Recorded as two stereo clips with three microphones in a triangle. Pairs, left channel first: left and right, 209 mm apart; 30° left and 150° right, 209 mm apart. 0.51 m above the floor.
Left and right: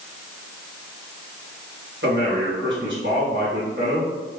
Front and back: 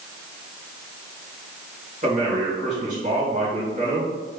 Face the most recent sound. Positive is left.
turn(degrees=-100)